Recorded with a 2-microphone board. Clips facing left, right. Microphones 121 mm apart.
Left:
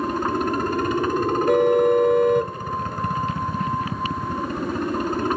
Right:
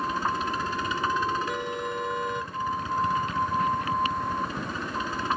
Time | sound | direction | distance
0.0 | a helicopter | 55° left (ahead or behind) | ?
1.5 | a car horn | 60° left (ahead or behind) | ?